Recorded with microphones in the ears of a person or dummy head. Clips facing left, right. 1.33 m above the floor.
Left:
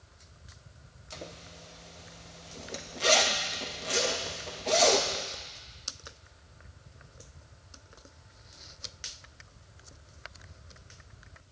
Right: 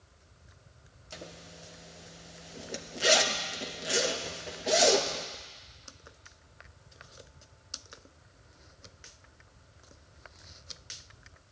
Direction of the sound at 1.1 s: 15° right (ahead or behind).